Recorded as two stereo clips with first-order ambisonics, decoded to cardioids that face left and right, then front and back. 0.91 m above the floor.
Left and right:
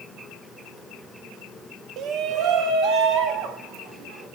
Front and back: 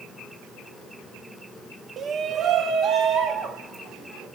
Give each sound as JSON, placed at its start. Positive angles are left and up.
{"t": 2.0, "sound": "a shout", "azimuth_deg": -120, "distance_m": 0.6}